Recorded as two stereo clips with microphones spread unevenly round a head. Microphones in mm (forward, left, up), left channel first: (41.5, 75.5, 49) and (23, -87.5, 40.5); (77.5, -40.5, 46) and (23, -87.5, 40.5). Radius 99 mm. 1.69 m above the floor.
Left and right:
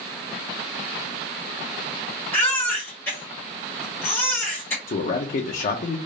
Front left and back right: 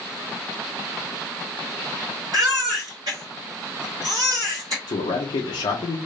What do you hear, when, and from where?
2.3 s a baby crying: 155° left, 1.4 m
4.9 s a man speaking: 40° left, 0.5 m